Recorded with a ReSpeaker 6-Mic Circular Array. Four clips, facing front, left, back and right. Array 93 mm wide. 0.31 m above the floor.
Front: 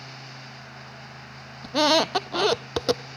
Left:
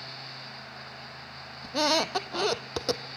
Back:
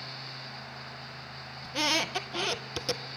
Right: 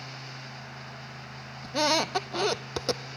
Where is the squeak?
Straight ahead, 0.6 m.